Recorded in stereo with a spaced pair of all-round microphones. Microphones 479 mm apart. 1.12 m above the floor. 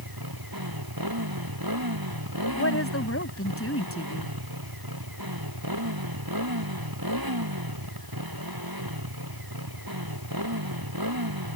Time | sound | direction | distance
0.0 | a motorcycle | 45° right (ahead or behind) | ?
2.5 | a woman speaking | 25° left (ahead or behind) | ?